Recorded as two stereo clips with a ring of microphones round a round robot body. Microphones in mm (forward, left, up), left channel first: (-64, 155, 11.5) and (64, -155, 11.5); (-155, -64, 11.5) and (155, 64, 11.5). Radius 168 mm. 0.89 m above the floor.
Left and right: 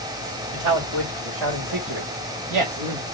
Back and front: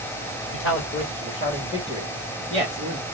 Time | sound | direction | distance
0.5 | a man speaking | 100° right | 1.9 m